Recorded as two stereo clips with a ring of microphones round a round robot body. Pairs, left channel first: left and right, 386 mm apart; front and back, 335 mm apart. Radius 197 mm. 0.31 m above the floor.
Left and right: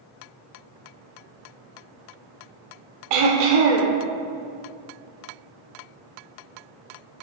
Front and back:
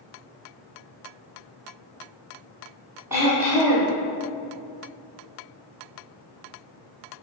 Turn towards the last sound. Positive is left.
turn(degrees=-95)